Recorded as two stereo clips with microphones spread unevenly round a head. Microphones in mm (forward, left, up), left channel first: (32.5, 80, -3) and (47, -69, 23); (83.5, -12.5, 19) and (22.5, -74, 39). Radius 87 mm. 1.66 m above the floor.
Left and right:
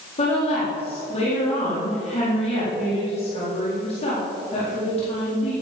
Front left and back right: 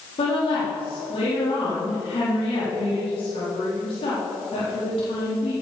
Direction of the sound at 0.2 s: 50° left.